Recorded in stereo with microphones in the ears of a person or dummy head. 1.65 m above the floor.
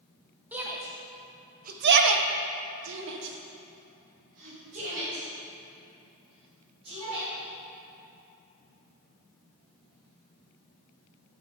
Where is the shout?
10° right (ahead or behind), 1.1 m; by 7.3 s 35° right (ahead or behind), 3.5 m.